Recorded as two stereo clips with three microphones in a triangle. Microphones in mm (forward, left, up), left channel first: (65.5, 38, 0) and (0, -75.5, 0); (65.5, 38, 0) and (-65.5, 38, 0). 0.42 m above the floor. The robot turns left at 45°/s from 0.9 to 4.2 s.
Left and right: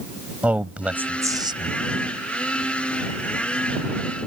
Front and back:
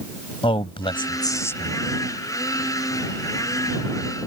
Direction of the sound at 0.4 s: 40° right.